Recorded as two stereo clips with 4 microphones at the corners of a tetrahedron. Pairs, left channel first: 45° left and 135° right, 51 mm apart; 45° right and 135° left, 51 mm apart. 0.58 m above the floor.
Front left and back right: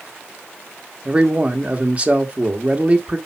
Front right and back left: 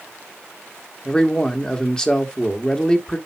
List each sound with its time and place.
1.1 s a man speaking: 100° right, 1.4 m